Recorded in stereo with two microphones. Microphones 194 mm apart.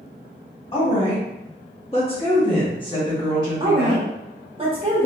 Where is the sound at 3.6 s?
30° right (ahead or behind), 0.9 m.